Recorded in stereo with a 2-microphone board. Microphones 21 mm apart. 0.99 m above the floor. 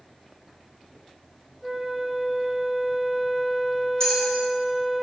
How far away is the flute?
About 3 m.